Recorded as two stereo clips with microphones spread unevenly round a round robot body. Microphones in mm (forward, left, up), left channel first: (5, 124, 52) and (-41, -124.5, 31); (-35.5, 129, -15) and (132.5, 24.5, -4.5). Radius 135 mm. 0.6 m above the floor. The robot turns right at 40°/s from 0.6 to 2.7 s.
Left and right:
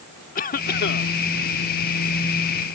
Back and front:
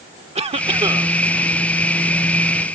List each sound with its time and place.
0.3 s a cough: 25° left; by 1.1 s 45° left